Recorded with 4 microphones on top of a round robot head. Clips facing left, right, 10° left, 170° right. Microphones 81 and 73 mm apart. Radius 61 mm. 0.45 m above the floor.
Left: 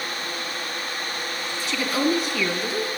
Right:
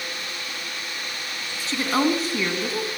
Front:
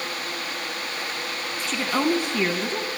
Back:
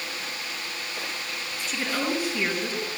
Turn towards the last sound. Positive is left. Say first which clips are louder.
# right 1 dB, front 5 dB
turn(degrees=-35)